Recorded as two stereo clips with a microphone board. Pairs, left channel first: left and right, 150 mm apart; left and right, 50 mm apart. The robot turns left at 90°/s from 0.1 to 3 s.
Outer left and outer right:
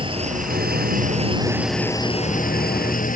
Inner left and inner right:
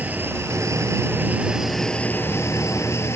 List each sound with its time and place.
0.0 s an engine running: 35° right; by 3.2 s 65° left